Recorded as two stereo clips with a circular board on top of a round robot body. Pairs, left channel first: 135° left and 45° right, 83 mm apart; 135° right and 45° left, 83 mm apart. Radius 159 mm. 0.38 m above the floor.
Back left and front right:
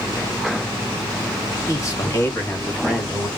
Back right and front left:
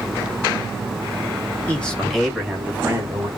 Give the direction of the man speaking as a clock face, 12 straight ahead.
7 o'clock.